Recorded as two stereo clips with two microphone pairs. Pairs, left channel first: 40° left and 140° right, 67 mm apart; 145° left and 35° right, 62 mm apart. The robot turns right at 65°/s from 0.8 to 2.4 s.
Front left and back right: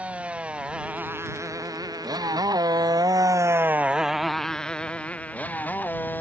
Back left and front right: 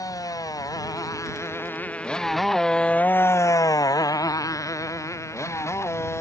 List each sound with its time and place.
0.0 s a motorcycle: 150° left; by 6.2 s 100° left